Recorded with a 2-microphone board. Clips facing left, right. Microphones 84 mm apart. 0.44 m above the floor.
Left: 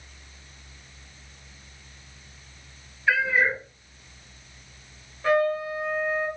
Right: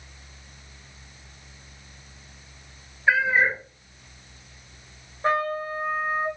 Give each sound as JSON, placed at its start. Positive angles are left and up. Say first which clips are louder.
{"t": 3.1, "sound": "a cat meowing", "louder": "right 2 dB", "side_deg": -30, "distance_m": 1.3}
{"t": 5.2, "sound": "a trumpet", "louder": "left 2 dB", "side_deg": -30, "distance_m": 1.3}